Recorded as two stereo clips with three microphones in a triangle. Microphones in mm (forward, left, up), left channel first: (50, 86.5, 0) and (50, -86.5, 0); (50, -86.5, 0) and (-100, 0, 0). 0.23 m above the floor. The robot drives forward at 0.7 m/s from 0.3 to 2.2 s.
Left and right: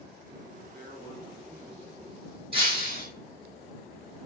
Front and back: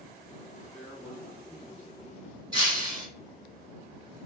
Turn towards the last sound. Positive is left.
turn(degrees=-145)